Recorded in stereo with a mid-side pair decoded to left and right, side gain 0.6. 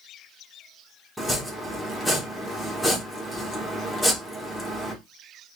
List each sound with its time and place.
1.2 s chopping: straight ahead, 1.6 m